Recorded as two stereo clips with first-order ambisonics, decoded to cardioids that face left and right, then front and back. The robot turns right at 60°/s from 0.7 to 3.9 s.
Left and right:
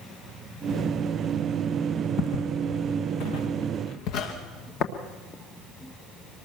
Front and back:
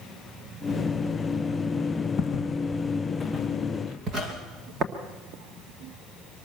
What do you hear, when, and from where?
2.2 s footsteps: 45° left, 1.6 m; by 4.3 s 120° left, 3.5 m
4.8 s tapping: 125° left, 1.6 m